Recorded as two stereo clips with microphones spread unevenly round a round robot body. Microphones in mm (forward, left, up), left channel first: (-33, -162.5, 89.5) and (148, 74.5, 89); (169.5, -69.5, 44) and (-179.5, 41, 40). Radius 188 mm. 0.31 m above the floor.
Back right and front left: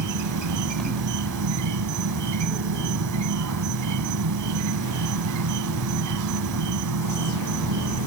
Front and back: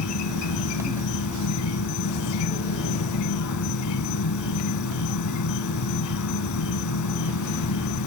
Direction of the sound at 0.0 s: 30° left.